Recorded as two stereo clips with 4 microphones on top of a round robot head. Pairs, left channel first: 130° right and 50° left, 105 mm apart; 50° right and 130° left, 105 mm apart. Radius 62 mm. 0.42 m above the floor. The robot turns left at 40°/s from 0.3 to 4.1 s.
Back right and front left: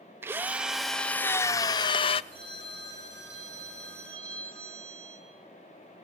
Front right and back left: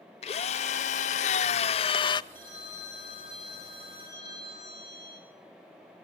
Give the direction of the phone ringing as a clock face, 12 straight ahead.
9 o'clock.